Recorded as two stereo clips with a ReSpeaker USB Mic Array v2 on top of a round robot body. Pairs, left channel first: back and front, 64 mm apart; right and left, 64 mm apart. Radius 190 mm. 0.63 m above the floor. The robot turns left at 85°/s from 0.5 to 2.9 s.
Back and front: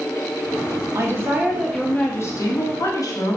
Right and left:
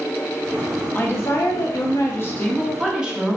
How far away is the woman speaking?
About 0.9 m.